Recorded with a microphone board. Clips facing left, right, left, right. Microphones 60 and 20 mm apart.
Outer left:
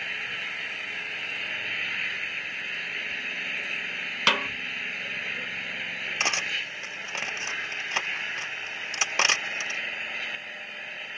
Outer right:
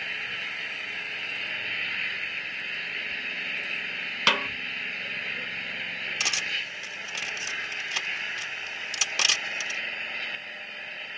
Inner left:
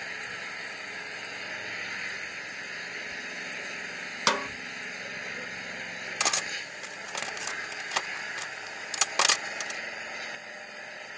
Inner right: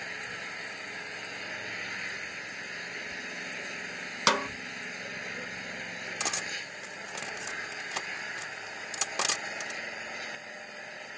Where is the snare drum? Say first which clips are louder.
Even, inner right 1 dB; centre (ahead or behind).